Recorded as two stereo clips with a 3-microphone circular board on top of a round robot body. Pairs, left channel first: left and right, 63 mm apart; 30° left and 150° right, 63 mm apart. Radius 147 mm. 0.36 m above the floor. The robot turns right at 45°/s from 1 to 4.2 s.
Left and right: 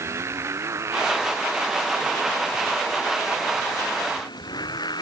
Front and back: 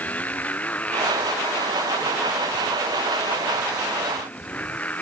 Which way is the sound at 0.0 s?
40° right.